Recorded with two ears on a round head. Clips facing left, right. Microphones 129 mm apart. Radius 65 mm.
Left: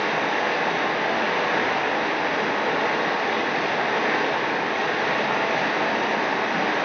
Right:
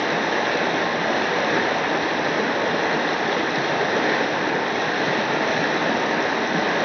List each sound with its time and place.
0.0 s running water: 45° right (ahead or behind), 1.5 m